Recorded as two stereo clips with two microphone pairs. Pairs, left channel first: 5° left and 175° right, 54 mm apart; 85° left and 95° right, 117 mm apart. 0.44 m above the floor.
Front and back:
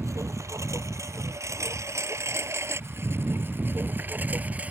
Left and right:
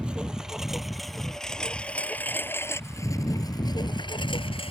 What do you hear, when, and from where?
0.0 s a lawn mower: 175° right; by 4.7 s 120° left